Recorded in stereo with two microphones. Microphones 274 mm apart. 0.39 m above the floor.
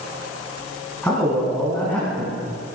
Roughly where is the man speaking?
Centre.